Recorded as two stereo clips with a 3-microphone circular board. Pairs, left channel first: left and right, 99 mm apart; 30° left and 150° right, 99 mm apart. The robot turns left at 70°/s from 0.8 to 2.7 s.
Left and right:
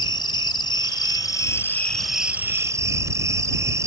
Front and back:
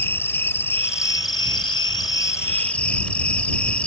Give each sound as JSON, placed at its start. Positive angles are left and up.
{"t": 0.0, "sound": "an insect", "azimuth_deg": 90}